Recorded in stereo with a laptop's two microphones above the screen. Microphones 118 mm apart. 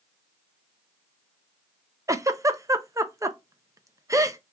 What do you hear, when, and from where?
2.1 s a giggle: 25° right (ahead or behind), 0.5 m